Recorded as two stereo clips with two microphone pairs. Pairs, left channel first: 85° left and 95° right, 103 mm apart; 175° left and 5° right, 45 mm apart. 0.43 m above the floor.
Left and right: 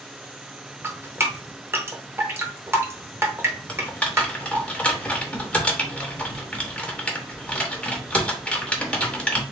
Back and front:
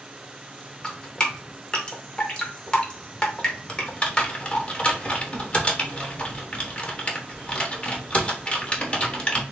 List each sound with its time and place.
0.8 s dripping: 140° right, 1.0 m
3.7 s typing on a keyboard: 150° left, 1.0 m